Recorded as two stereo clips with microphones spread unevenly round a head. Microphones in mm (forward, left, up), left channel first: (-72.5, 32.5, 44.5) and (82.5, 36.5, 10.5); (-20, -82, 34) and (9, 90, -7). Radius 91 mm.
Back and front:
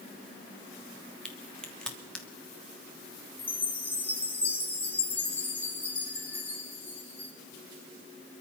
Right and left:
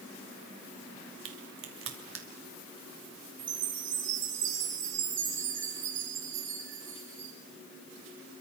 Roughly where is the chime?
Left.